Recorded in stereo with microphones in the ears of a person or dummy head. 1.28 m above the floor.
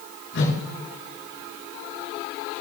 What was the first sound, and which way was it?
A whoosh, 60° left (ahead or behind).